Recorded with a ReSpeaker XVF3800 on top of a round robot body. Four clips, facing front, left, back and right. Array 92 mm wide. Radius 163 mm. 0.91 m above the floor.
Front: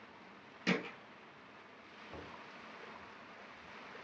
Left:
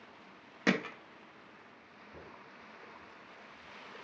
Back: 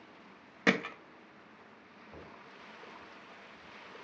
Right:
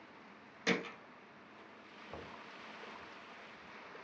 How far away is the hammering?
About 0.9 m.